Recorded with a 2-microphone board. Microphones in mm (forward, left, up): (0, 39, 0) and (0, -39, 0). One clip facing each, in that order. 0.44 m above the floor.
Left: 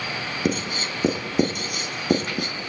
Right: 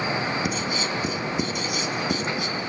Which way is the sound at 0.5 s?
45° left (ahead or behind).